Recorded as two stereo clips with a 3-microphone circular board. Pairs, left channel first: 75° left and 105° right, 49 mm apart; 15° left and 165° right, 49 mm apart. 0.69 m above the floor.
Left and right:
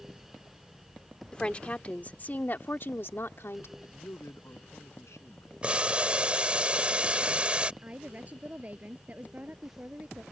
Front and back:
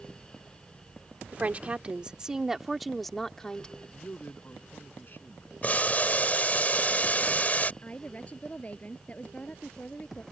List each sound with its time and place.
1.3 s a woman speaking: 140° left; by 3.7 s 85° left
3.8 s a man speaking: 60° left
5.6 s boiling: 40° right
7.8 s a woman speaking: 45° right